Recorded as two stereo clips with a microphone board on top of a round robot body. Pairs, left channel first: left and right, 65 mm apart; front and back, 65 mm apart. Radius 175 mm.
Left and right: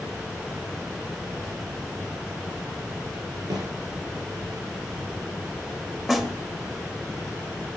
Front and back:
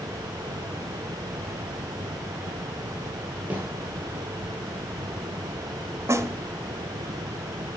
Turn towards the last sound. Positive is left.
turn(degrees=-175)